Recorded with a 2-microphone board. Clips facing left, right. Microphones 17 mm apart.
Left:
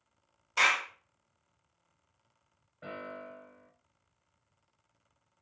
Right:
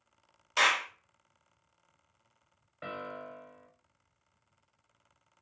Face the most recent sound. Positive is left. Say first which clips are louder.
# right 2 dB
turn(degrees=-70)  # may be behind; listen again after turning